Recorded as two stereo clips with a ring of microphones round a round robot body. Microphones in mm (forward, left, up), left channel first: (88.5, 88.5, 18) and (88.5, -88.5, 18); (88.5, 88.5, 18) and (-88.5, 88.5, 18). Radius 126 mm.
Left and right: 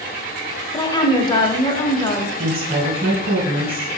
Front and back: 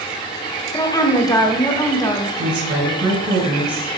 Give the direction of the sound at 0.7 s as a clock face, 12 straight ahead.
10 o'clock.